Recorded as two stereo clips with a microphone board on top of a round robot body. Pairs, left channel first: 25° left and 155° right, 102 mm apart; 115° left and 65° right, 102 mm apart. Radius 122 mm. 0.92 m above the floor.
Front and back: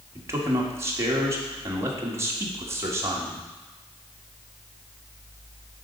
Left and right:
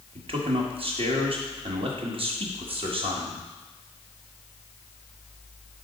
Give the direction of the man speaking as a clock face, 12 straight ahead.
3 o'clock.